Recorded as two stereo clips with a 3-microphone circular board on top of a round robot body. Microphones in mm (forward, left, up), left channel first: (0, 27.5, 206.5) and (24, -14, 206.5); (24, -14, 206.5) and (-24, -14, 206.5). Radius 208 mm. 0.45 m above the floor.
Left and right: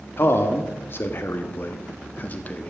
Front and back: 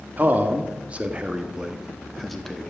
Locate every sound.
0.2 s a man speaking: 140° left, 1.8 m; by 2.7 s 75° left, 1.5 m